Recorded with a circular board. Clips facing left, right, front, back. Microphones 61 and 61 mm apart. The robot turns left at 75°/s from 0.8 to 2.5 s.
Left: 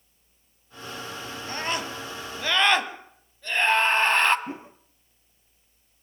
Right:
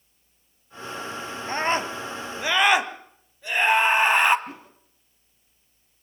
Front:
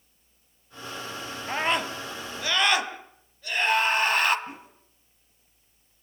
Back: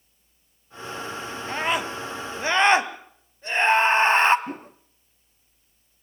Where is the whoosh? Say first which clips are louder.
Left 4 dB, back 7 dB; 150° left, 0.7 m.